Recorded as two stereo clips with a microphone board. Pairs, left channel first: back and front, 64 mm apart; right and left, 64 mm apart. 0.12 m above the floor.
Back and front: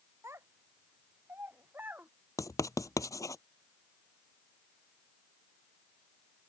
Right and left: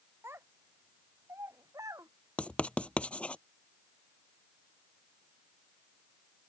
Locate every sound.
0.2 s a child speaking: 45° left; by 2.1 s 60° left
2.4 s writing: 160° right